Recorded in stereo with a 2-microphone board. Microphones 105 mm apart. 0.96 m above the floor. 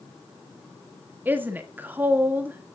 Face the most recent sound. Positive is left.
turn(degrees=-20)  # may be behind; listen again after turning